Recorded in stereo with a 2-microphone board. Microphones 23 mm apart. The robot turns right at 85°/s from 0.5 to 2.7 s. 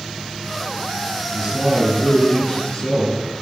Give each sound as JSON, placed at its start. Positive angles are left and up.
{"t": 1.3, "sound": "a man speaking", "azimuth_deg": -75, "distance_m": 4.5}